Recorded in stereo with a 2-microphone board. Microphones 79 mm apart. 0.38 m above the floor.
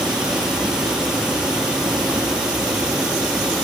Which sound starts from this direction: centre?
Running water, at 0.0 s.